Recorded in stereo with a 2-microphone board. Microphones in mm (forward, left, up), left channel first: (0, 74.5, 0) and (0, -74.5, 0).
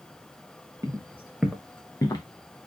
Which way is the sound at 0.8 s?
20° right (ahead or behind).